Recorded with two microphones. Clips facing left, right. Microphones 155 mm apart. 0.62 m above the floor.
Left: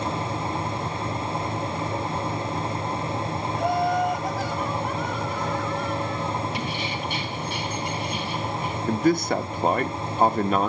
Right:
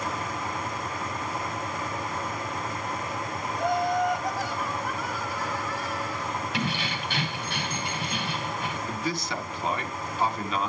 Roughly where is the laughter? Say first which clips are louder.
Left 2 dB; centre.